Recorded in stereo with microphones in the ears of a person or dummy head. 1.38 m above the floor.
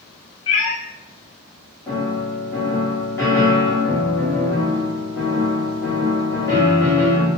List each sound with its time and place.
0.5 s a cat meowing: 30° left (ahead or behind), 0.8 m
1.9 s a piano: 15° left (ahead or behind), 1.3 m